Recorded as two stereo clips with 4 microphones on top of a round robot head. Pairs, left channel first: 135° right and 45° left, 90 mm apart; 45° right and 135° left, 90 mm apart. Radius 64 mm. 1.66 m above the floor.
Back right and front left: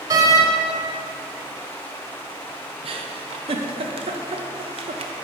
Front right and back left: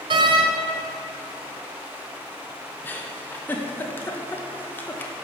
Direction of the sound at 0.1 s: 100° left.